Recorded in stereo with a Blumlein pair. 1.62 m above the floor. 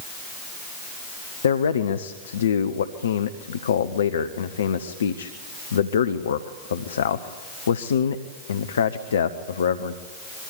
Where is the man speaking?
65° left, 1.0 m.